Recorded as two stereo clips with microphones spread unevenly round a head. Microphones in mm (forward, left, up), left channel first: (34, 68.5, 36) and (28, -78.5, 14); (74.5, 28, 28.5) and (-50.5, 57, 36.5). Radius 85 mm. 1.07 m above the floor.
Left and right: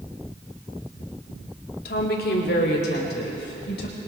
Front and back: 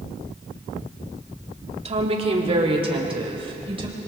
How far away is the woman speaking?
About 2.5 m.